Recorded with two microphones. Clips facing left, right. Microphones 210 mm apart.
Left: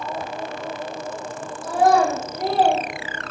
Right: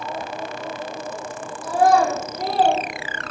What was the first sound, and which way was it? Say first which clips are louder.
A child speaking: even; centre (ahead or behind).